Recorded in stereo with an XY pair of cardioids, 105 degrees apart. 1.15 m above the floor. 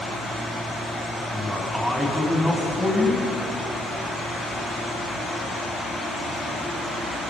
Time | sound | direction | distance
1.3 | a man speaking | 5° right | 9 m